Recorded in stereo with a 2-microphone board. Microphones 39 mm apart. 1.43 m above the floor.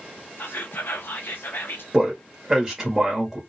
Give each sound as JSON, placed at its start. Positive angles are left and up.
{"t": 0.4, "sound": "whispering", "side_deg": 75, "distance_m": 0.5}
{"t": 1.9, "sound": "a man speaking", "side_deg": -10, "distance_m": 0.8}